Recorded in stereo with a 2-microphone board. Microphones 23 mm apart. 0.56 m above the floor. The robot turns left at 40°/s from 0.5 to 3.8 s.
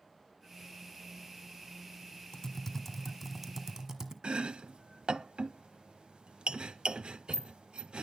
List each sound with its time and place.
2.3 s typing on a keyboard: 25° left, 1.7 m; by 4.1 s 35° right, 1.7 m
4.2 s chopping: 50° right (ahead or behind), 0.6 m